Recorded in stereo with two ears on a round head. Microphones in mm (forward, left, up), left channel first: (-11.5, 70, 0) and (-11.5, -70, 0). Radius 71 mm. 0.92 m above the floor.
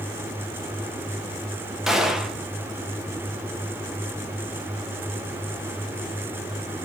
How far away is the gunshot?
About 0.9 m.